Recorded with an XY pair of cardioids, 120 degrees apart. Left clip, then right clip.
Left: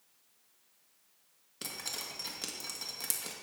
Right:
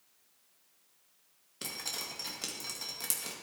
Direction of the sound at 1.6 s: Straight ahead.